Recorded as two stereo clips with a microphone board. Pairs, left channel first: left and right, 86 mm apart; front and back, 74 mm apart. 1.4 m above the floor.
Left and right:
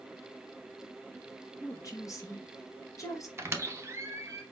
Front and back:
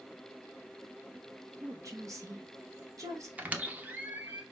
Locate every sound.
1.6 s a woman speaking: 140° left, 0.9 m
3.4 s a squeak: 125° right, 0.5 m